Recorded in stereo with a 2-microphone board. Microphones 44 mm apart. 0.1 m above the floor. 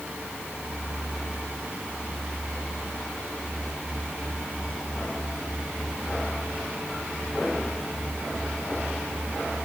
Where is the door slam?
No door slam in this recording.